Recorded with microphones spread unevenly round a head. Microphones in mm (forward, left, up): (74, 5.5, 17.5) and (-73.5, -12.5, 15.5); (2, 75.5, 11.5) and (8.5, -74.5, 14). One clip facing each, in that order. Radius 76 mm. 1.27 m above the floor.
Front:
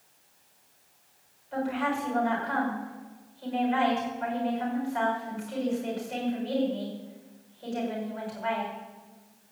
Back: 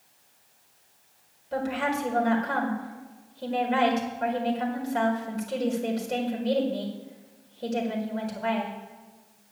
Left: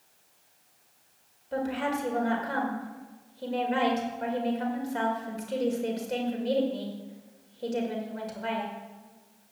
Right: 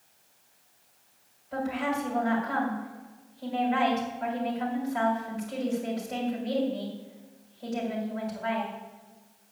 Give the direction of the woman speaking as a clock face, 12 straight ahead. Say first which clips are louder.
Back 1 dB, even; 7 o'clock.